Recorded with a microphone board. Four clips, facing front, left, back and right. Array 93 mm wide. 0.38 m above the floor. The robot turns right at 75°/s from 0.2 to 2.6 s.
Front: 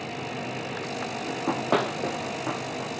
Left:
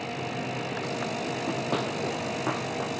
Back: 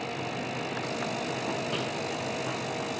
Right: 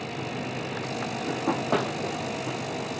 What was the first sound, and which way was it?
Running footsteps, 70° right.